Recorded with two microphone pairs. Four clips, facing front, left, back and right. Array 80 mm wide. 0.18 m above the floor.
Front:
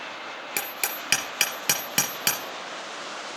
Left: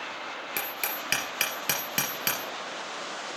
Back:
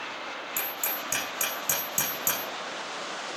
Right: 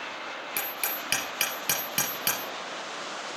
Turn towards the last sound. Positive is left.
turn(degrees=15)